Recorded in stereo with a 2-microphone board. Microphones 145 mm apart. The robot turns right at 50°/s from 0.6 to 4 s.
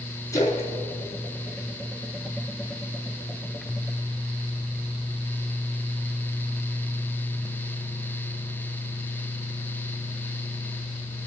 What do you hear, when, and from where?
0.3 s a splash: 25° left (ahead or behind), 3.5 m; by 2.5 s 50° left (ahead or behind), 3.5 m